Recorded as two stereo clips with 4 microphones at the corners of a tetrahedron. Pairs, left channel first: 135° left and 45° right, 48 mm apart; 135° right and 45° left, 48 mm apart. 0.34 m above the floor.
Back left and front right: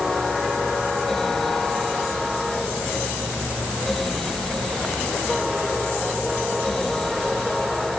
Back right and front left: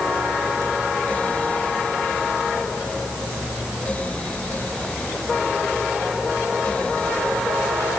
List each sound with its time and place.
Only background noise.